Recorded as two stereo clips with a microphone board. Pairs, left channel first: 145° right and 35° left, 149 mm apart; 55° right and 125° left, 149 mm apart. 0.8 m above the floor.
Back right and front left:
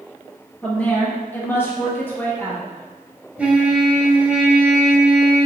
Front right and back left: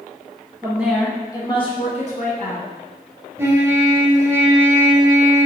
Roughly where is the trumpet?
Left.